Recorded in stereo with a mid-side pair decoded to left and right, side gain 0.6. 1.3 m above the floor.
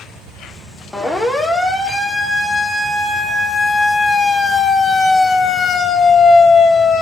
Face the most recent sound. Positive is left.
turn(degrees=45)